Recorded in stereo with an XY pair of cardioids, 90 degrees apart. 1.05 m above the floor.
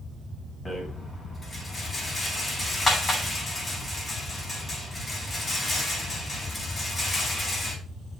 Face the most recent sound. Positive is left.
turn(degrees=35)